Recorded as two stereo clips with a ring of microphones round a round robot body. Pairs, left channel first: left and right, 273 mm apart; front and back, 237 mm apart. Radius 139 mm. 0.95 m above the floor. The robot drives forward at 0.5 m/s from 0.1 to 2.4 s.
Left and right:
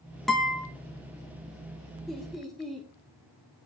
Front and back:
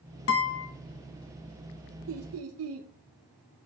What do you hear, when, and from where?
0.3 s a guitar: straight ahead, 1.2 m
2.1 s laughter: straight behind, 0.7 m